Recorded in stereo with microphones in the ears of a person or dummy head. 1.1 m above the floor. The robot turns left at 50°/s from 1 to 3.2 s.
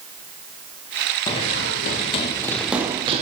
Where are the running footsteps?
25° left (ahead or behind), 1.6 m; by 3.2 s 35° right (ahead or behind), 2 m.